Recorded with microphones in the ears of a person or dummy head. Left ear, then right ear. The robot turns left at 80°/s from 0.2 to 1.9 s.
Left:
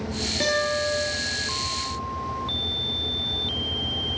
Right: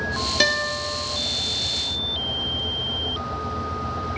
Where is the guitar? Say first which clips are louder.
Right 1 dB; 130° right, 0.7 m; by 1.1 s straight behind, 0.7 m.